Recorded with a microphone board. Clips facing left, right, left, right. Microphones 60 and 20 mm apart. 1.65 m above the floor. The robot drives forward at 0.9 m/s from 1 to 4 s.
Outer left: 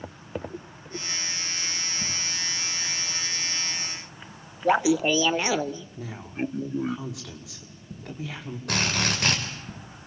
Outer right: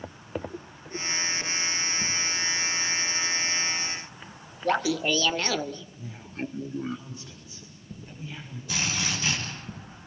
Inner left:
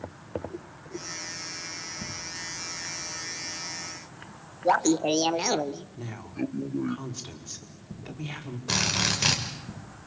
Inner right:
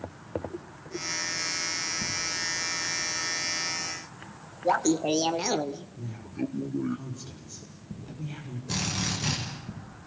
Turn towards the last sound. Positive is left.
turn(degrees=60)  # may be behind; listen again after turning